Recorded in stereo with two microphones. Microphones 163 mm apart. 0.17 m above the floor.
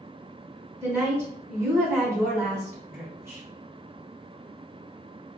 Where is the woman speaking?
20° right (ahead or behind), 1.3 m.